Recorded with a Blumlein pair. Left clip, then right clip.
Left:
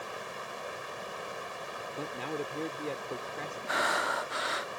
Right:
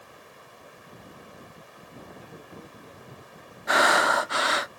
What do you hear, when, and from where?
0.0 s running water: 60° left
2.0 s a man speaking: 55° left
3.7 s breathing: 65° right